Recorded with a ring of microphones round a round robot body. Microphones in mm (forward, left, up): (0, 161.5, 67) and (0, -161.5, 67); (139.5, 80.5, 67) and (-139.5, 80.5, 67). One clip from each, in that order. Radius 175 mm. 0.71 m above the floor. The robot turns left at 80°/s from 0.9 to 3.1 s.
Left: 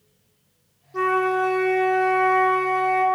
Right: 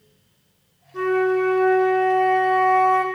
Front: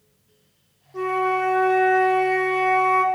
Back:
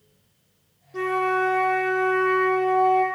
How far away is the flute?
About 1.6 m.